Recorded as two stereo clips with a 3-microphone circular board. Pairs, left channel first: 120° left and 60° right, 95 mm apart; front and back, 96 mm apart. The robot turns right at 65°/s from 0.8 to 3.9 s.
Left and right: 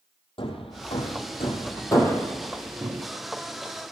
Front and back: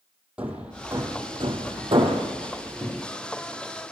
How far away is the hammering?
About 4 m.